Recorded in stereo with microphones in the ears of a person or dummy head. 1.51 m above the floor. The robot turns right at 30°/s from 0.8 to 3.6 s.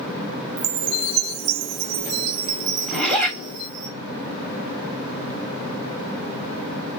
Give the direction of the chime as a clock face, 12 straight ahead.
3 o'clock.